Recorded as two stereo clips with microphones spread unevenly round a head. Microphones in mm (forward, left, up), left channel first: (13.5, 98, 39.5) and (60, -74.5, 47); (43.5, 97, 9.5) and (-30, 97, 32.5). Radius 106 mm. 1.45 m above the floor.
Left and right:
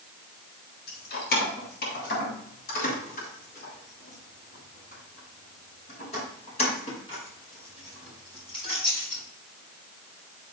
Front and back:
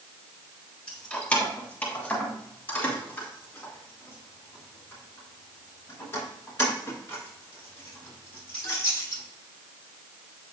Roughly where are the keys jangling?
Left.